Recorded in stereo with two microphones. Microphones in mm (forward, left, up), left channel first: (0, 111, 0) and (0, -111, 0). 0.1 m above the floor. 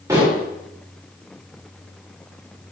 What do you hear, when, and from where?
0.1 s dishes clattering: 15° right (ahead or behind), 6.5 m